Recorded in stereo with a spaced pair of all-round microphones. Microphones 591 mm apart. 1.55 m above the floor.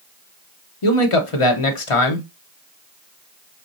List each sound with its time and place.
0.8 s a man speaking: 55° left (ahead or behind), 1.0 m